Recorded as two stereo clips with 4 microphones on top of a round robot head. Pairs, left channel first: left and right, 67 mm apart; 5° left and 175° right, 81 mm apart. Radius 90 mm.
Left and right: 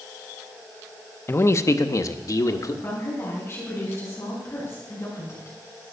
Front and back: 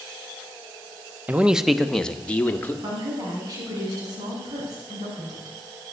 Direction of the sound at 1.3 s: 120° left.